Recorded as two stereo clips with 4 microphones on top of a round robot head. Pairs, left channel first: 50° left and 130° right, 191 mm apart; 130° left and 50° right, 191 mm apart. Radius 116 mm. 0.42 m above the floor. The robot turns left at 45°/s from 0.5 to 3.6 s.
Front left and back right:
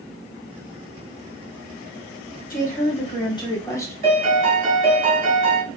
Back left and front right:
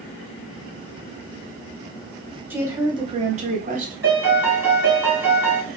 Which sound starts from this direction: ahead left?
A woman speaking, at 2.5 s.